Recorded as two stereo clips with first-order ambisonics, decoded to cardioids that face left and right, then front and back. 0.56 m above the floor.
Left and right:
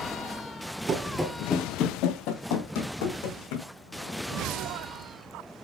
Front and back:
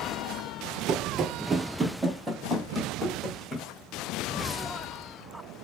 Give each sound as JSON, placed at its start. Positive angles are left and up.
{"t": 0.9, "sound": "running footsteps", "azimuth_deg": -135, "distance_m": 0.7}